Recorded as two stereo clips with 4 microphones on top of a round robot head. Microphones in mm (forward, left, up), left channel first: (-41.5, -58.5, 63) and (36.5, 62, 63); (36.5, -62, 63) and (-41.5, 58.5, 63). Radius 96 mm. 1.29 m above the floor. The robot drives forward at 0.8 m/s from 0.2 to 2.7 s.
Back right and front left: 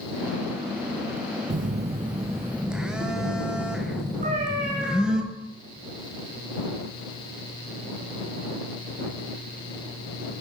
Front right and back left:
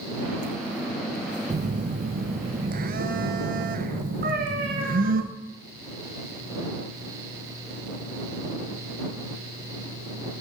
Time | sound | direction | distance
1.5 | a phone buzzing | 75° left | 0.7 m
4.2 | a cat meowing | 95° left | 4 m